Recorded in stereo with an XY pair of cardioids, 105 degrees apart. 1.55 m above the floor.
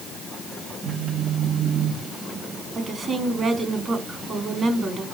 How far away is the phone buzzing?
About 2.0 m.